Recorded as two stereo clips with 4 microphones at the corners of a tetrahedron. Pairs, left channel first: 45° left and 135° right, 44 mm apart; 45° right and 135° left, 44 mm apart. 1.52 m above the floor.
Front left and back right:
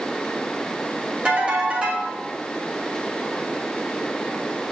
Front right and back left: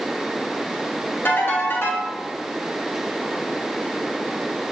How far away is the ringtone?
About 2.5 m.